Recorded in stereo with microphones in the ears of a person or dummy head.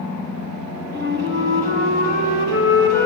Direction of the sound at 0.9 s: 60° right (ahead or behind).